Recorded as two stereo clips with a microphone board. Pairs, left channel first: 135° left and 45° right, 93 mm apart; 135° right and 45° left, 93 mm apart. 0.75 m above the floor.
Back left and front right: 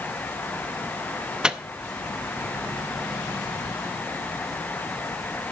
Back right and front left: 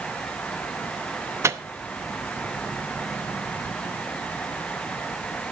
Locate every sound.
1.4 s a microwave: 30° left, 0.6 m